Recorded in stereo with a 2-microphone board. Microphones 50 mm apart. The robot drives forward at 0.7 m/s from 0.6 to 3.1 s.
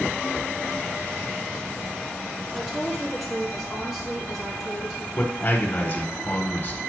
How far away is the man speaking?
About 1.1 m.